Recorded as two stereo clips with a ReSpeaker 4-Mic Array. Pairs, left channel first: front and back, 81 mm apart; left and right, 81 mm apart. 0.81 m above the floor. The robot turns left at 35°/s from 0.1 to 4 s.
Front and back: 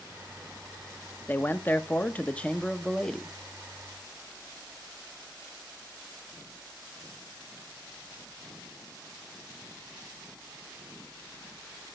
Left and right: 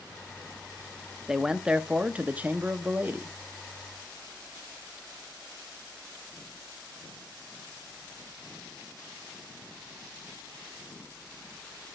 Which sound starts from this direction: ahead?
A man speaking, at 1.3 s.